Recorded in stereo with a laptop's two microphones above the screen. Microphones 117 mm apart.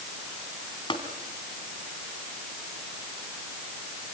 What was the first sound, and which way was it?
Tapping, 45° left (ahead or behind).